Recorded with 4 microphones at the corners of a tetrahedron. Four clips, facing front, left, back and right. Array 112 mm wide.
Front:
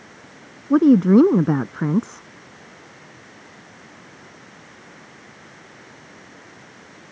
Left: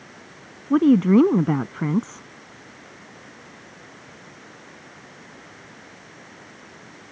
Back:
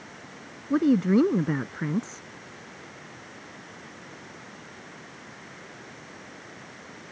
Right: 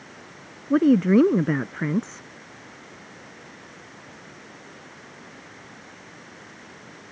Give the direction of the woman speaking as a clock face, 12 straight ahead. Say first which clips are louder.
Left 2 dB, front 8 dB; 12 o'clock.